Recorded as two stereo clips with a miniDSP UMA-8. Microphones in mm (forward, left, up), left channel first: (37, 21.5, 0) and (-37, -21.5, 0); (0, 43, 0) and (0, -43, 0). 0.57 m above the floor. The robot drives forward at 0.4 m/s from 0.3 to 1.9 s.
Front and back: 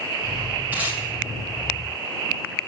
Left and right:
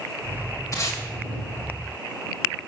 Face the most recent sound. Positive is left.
turn(degrees=145)